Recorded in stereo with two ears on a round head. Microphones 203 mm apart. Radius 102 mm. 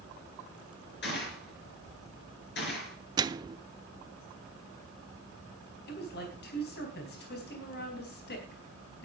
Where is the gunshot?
55° left (ahead or behind), 4.5 m.